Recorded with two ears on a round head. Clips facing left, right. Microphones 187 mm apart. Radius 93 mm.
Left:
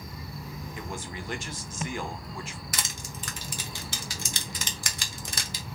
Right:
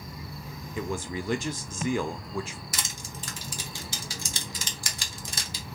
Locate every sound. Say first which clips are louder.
0.8 s a man speaking: right 9 dB; 70° right (ahead or behind), 0.6 m
2.7 s crushing: left 1 dB; 50° left (ahead or behind), 0.7 m